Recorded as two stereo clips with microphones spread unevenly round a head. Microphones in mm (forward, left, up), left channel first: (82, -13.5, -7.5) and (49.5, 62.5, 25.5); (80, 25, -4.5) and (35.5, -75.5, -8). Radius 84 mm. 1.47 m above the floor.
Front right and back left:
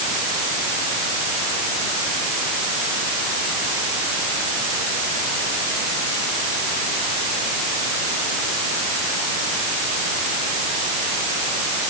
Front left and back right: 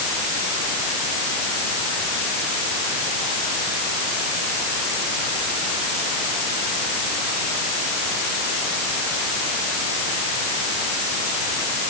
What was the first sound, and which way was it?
Only background noise.